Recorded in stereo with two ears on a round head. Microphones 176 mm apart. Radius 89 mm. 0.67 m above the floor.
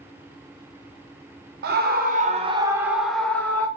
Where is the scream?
55° right (ahead or behind), 0.8 m; by 3.7 s 15° left (ahead or behind), 1.0 m.